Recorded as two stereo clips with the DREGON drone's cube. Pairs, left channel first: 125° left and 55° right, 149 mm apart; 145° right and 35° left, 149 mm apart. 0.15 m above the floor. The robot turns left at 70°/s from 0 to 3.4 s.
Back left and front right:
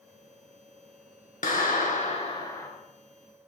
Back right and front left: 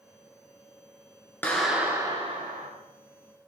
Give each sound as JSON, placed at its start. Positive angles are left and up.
{"t": 1.4, "sound": "a clap", "azimuth_deg": 140, "distance_m": 2.5}